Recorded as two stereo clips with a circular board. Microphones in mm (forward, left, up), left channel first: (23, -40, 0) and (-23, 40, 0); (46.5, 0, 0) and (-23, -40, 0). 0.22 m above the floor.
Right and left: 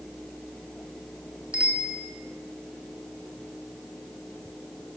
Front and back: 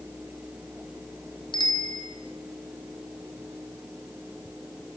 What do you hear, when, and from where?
1.5 s a bicycle bell: 45° left, 3 m